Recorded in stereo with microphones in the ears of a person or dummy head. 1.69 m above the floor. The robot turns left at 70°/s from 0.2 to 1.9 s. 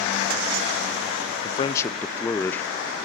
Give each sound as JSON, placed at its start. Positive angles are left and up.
{"t": 1.4, "sound": "a man speaking", "azimuth_deg": 40, "distance_m": 0.6}